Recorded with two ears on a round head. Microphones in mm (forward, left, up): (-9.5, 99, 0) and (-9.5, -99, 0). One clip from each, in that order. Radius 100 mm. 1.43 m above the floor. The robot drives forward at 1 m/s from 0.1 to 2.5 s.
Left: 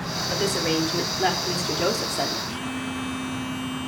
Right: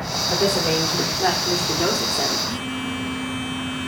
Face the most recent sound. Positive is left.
turn(degrees=15)  # may be behind; listen again after turning